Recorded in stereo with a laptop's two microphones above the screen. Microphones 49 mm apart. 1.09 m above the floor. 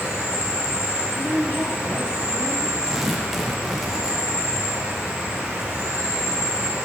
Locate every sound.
0.0 s an insect: 25° right (ahead or behind), 2.5 m
1.1 s a woman speaking: 65° left (ahead or behind), 2.5 m
2.9 s tearing paper: 5° right (ahead or behind), 0.7 m